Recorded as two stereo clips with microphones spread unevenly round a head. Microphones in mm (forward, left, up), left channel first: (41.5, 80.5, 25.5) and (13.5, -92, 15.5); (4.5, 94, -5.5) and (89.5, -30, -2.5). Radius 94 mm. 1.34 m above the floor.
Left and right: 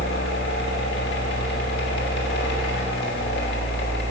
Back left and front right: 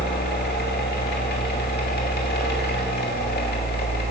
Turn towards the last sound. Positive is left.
turn(degrees=115)